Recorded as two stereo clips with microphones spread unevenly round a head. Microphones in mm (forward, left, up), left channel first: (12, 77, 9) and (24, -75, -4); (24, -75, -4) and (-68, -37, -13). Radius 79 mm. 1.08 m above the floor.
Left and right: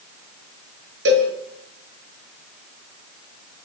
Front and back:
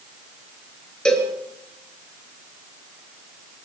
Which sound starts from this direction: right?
A cowbell, at 1.1 s.